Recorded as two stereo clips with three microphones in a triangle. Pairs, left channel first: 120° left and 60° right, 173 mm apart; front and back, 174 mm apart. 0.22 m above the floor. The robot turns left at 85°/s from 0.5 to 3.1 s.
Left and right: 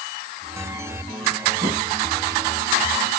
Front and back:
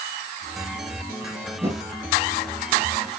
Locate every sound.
1.6 s a whoosh: 105° right, 4.5 m; by 1.8 s 125° right, 4.5 m